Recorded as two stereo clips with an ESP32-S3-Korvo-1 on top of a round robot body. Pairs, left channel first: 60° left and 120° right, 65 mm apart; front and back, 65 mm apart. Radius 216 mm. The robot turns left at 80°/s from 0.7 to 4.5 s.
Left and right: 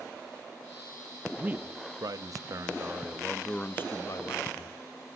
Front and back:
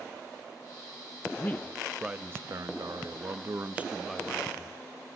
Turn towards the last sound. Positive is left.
turn(degrees=60)